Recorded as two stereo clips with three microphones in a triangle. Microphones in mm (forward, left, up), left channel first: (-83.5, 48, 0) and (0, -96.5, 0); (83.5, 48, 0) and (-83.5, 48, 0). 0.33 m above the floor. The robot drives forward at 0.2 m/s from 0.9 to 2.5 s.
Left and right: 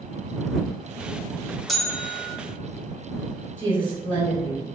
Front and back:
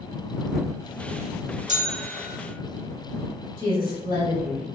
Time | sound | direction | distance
1.7 | a bell | 150° right | 0.5 m
3.6 | a woman speaking | 175° right | 1.4 m